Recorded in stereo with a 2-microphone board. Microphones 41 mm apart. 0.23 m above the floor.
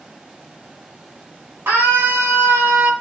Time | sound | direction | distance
1.7 | a scream | 55° right (ahead or behind) | 7.5 m